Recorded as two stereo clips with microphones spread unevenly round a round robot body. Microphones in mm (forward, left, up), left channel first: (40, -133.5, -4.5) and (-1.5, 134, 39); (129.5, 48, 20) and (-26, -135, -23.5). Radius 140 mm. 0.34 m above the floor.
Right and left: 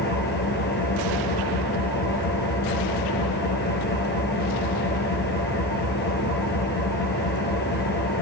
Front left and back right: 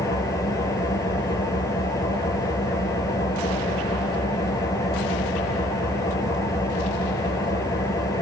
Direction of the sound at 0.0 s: 25° right.